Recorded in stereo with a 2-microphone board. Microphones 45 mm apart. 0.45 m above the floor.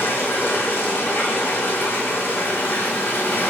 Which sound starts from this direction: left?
Running water, at 0.0 s.